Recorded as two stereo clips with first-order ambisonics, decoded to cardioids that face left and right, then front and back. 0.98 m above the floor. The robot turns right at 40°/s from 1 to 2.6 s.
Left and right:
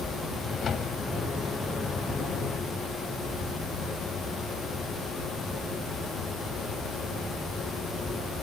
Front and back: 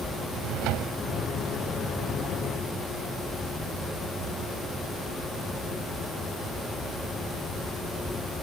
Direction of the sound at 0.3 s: 155° left.